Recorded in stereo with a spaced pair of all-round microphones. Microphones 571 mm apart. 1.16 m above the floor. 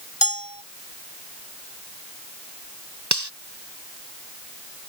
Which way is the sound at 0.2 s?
35° left (ahead or behind).